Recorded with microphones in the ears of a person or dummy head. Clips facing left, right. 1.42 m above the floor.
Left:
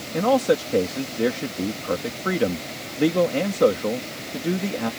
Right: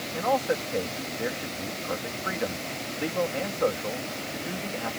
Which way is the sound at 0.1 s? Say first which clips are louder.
Left 7 dB; 55° left (ahead or behind).